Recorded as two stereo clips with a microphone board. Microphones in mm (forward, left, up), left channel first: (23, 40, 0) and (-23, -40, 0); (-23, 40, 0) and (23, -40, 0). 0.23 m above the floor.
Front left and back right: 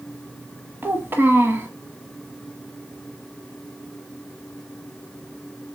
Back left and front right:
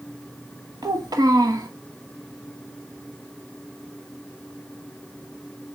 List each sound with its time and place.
0.8 s a child speaking: 65° right, 1.2 m